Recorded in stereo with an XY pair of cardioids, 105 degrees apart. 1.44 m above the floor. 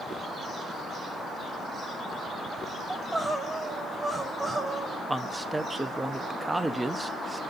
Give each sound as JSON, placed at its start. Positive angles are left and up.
{"t": 2.9, "sound": "crying", "azimuth_deg": -20, "distance_m": 1.5}
{"t": 5.1, "sound": "a man speaking", "azimuth_deg": -15, "distance_m": 0.6}